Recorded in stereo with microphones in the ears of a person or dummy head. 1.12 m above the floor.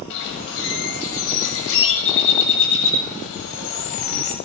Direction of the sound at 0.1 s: 70° left (ahead or behind).